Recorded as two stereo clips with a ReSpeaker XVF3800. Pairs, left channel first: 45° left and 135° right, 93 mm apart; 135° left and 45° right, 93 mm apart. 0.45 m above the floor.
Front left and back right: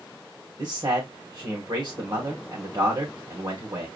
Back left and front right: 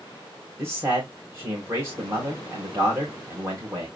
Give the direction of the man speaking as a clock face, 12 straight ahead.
3 o'clock.